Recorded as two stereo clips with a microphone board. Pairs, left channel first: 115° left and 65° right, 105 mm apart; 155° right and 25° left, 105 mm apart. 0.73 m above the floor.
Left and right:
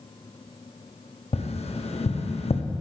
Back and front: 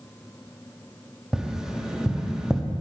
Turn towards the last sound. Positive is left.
turn(degrees=105)